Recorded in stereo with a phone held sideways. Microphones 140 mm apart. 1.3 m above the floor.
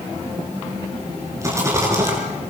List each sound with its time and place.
1.4 s a rattle: 20° right (ahead or behind), 6.5 m